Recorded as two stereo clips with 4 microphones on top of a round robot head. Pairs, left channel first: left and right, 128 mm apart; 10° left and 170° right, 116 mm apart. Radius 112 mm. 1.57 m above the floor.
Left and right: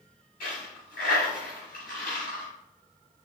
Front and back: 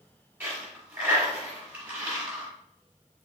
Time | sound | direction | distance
0.4 | a dropped coin | 120° left | 1.4 m